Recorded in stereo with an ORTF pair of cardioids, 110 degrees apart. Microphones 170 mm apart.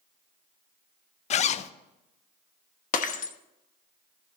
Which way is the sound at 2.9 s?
55° left.